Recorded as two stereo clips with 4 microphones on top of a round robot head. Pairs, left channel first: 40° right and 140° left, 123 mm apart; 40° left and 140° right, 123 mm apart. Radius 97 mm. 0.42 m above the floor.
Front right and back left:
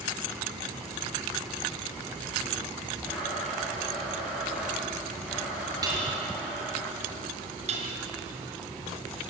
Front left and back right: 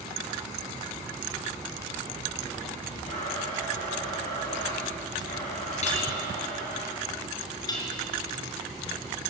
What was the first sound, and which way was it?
A blender, 55° left.